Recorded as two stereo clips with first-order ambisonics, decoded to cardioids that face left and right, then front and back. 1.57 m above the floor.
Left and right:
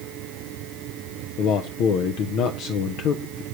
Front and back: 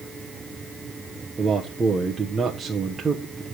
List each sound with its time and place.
1.4 s a man speaking: 105° left, 0.7 m